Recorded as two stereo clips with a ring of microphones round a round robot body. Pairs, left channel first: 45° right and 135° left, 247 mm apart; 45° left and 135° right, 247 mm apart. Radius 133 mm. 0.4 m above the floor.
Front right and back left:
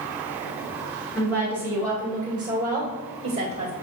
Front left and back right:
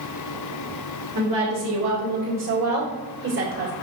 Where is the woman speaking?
120° right, 2.5 m; by 3.7 s 165° right, 1.9 m.